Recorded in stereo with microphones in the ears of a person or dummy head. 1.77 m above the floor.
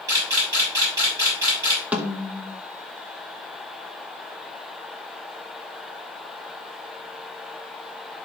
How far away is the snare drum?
About 0.9 m.